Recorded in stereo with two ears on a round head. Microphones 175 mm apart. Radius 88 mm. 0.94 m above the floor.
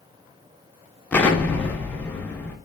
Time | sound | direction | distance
1.1 | an explosion | 5° left (ahead or behind) | 0.6 m